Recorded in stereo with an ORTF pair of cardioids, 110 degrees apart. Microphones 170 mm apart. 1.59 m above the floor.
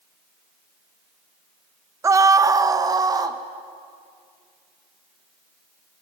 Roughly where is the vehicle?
I don't hear a vehicle.